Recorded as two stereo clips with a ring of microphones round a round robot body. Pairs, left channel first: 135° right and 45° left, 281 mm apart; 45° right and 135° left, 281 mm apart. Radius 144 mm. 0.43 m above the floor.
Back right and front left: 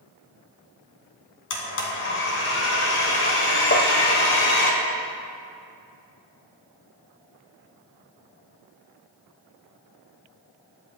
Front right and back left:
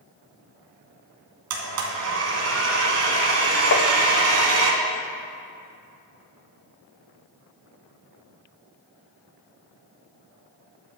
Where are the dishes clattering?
I don't hear dishes clattering.